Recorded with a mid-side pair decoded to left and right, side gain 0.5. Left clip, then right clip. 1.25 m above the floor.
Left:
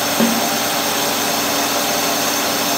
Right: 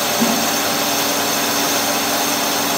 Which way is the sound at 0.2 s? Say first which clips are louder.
Left 2 dB; 50° left.